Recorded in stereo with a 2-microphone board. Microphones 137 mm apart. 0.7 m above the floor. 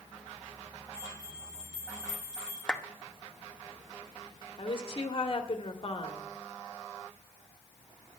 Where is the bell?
5° right (ahead or behind), 5.5 m.